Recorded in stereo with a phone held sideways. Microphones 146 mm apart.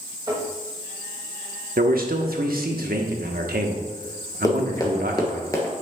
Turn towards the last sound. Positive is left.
turn(degrees=20)  # may be behind; listen again after turning